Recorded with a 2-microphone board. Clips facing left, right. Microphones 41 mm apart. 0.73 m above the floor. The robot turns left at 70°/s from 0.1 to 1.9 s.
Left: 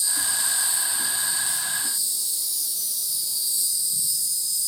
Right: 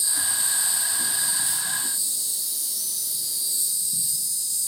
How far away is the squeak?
I don't hear a squeak.